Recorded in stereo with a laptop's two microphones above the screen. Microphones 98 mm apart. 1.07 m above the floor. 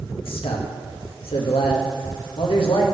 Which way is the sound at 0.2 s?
75° left (ahead or behind).